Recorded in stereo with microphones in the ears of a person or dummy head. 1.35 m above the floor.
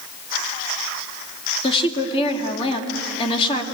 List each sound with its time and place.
1.6 s a woman speaking: 30° left (ahead or behind), 2 m